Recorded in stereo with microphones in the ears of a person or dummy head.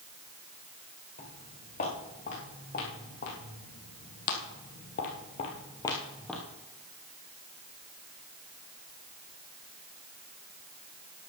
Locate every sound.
1.2 s footsteps: 45° left (ahead or behind), 6 m; by 6.4 s 5° left (ahead or behind), 2 m